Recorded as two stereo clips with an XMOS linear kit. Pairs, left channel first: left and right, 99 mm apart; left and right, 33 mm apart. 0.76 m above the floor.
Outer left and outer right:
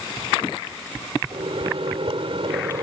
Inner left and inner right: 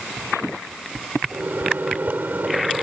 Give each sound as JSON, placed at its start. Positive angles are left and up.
{"t": 1.3, "sound": "a microwave", "side_deg": -75}